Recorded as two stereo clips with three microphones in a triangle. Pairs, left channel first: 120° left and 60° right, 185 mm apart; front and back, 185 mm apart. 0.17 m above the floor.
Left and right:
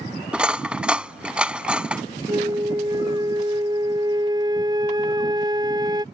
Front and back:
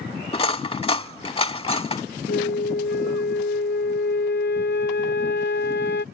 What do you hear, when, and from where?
0.3 s cutlery clinking: 20° left
2.3 s a flute: 10° left